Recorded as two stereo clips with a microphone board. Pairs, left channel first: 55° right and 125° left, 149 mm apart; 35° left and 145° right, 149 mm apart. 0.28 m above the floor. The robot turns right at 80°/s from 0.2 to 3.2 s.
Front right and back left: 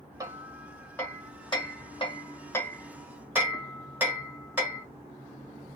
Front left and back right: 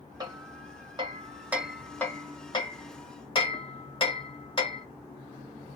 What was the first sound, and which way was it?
Hammering, 175° left.